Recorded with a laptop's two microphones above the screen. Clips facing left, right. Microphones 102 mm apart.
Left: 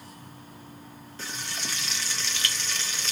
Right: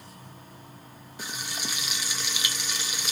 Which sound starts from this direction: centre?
Frying, at 1.2 s.